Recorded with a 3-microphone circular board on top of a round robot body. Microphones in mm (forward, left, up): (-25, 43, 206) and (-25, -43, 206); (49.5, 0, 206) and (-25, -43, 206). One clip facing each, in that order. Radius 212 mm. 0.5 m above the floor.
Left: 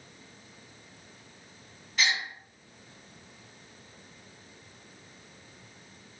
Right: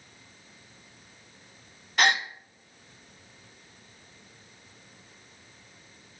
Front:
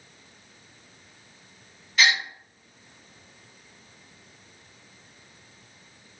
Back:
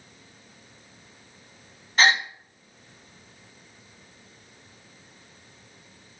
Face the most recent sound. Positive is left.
turn(degrees=-105)